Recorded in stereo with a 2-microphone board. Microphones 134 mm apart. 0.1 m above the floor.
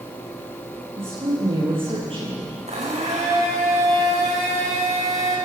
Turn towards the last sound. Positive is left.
turn(degrees=-55)  # may be behind; listen again after turning